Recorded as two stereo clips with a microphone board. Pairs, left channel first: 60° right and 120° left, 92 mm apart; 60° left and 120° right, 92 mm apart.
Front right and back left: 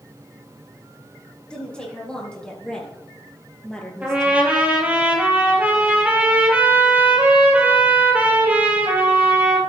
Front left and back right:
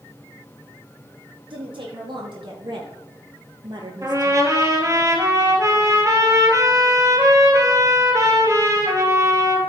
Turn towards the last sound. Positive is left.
turn(degrees=-170)